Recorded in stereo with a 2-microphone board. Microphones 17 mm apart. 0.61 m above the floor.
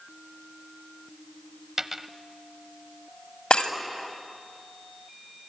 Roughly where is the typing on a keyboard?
I don't hear typing on a keyboard.